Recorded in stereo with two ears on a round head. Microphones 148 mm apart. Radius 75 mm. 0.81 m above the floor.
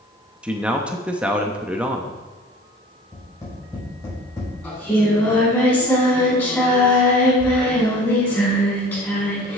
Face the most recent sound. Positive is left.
turn(degrees=10)  # may be behind; listen again after turning